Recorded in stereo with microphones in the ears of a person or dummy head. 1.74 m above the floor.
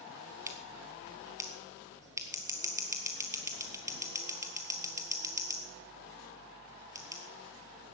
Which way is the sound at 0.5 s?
15° right (ahead or behind).